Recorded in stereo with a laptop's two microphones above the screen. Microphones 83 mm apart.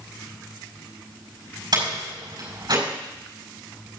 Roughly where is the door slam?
Right.